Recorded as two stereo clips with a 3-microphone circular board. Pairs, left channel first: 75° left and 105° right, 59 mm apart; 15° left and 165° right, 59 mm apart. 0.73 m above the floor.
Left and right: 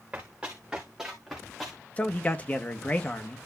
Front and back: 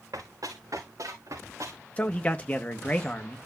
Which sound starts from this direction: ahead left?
A man speaking, at 2.0 s.